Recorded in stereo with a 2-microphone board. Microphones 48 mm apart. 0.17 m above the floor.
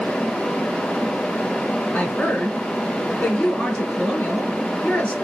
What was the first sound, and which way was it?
A woman speaking, 30° left (ahead or behind).